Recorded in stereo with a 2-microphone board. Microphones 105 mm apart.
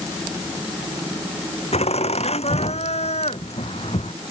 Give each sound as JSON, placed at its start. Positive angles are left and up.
{"t": 1.7, "sound": "laughter", "side_deg": 85}